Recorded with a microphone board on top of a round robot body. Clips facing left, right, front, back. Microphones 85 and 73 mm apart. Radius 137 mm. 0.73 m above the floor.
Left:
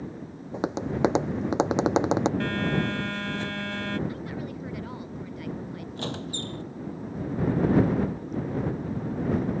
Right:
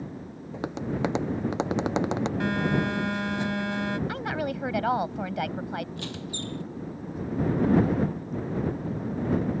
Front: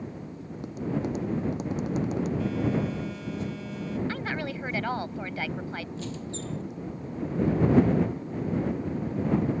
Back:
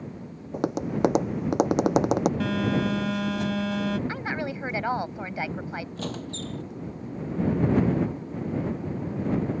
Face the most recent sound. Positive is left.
turn(degrees=145)